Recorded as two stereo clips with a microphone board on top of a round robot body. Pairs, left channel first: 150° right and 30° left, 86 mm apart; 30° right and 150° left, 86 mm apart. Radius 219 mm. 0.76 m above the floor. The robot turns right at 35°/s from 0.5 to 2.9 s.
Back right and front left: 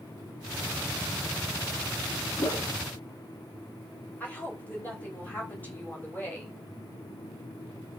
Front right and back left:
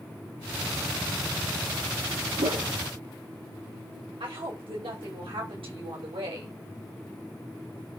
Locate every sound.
2.4 s a whoosh: 160° left, 1.9 m; by 2.7 s 170° left, 1.9 m
4.2 s a woman speaking: 140° left, 5.5 m